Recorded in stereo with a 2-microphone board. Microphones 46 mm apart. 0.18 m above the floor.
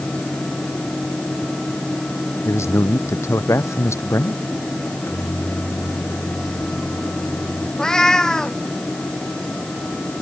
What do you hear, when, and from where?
2.5 s a man speaking: 75° left (ahead or behind)
4.8 s a microwave: 50° left (ahead or behind)
7.8 s a cat meowing: 15° left (ahead or behind)